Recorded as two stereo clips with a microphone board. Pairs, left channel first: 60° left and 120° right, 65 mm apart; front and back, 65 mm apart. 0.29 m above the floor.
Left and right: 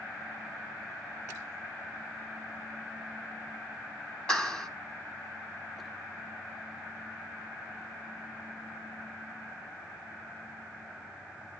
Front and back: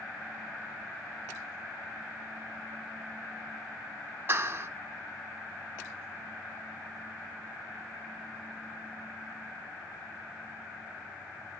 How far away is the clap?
About 1.6 m.